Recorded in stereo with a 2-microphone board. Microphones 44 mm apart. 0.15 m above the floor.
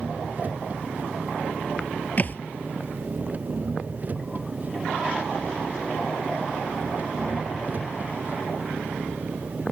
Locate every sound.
0.0 s an engine running: 35° right (ahead or behind)
2.2 s a thud: 40° left (ahead or behind)